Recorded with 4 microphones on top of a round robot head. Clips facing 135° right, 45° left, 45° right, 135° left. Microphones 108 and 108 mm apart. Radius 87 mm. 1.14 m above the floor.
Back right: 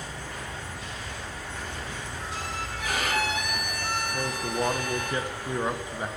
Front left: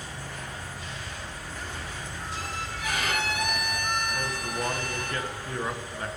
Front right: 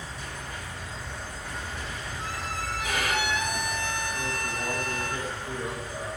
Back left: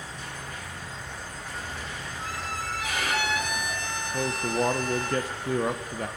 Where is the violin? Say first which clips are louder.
Back right 2 dB, front right 1 dB; 85° right, 6 m.